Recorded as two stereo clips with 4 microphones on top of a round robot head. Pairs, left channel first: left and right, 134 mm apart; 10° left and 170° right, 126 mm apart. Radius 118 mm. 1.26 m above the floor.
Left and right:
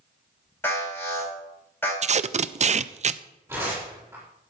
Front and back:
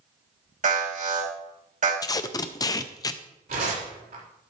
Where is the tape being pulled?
55° right, 0.5 m.